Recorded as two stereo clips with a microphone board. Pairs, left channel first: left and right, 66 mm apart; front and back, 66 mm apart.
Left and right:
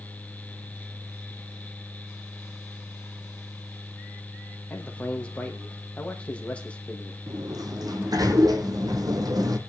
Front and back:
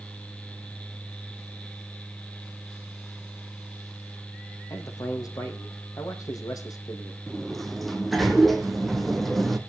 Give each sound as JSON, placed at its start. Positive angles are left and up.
{"t": 4.7, "sound": "a man speaking", "azimuth_deg": 20, "distance_m": 4.5}
{"t": 7.3, "sound": "a sliding door", "azimuth_deg": -90, "distance_m": 2.0}